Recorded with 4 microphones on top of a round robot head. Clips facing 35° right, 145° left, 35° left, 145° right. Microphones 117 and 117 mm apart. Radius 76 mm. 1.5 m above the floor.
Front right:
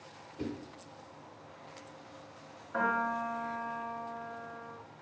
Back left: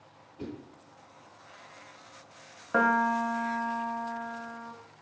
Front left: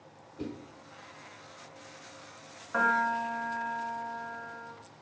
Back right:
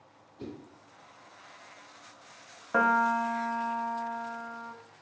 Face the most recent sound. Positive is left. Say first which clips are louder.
# back left 7 dB, back right 3 dB
turn(degrees=165)